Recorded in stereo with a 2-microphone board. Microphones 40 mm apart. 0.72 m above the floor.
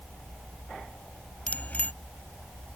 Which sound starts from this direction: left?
A bicycle bell, at 1.5 s.